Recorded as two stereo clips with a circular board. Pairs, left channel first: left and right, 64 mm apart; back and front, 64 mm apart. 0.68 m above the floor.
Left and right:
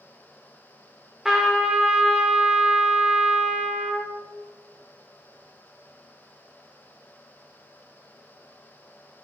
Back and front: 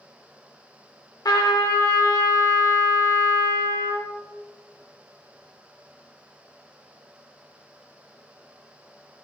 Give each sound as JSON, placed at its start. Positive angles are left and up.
{"t": 1.2, "sound": "a trumpet", "azimuth_deg": -175, "distance_m": 0.7}